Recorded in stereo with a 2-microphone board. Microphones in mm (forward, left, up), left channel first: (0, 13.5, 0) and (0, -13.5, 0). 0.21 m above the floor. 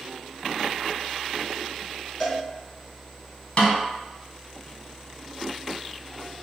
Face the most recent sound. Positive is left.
turn(degrees=40)  # may be behind; listen again after turning